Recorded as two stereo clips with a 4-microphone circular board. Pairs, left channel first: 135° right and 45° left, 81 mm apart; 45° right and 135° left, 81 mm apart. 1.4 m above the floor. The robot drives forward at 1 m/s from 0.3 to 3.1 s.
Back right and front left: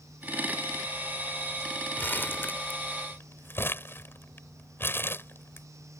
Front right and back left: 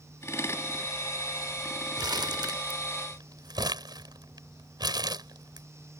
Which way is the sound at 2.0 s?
160° left.